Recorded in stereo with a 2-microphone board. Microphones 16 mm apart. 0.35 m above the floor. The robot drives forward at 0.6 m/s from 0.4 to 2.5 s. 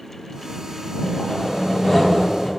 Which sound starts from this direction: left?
Sawing, at 1.0 s.